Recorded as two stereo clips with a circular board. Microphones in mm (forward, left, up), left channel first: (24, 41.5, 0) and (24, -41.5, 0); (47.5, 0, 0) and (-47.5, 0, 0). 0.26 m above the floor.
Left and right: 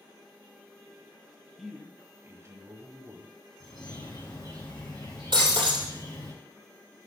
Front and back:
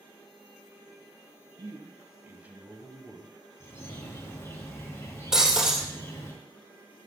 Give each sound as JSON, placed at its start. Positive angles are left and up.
{"t": 1.6, "sound": "a man speaking", "azimuth_deg": -175, "distance_m": 1.4}
{"t": 3.6, "sound": "a bird", "azimuth_deg": 60, "distance_m": 4.0}
{"t": 5.3, "sound": "breaking glass", "azimuth_deg": -95, "distance_m": 2.5}